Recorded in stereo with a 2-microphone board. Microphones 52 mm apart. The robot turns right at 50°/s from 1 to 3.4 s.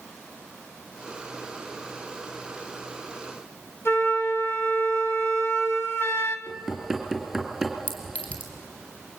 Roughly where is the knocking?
Centre.